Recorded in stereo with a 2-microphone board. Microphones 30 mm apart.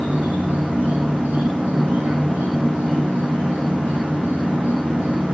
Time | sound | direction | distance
0.0 | an insect | 65° right (ahead or behind) | 6 m